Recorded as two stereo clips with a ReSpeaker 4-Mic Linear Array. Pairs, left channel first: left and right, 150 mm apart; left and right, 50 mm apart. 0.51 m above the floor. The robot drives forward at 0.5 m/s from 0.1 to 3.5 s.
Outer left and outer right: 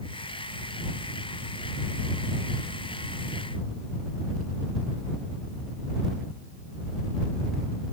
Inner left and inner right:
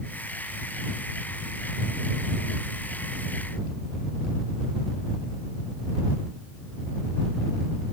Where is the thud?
No thud in this recording.